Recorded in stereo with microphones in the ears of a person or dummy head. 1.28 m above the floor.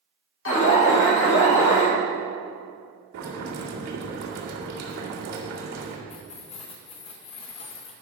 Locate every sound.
0.5 s an alarm: 60° left (ahead or behind), 2.5 m
3.1 s boiling: 85° right, 2 m
6.1 s keys jangling: 25° left (ahead or behind), 1.0 m